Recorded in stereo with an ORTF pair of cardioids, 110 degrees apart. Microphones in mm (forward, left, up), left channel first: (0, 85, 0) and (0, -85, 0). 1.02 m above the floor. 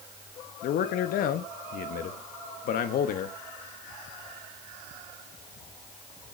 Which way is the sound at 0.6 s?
65° left.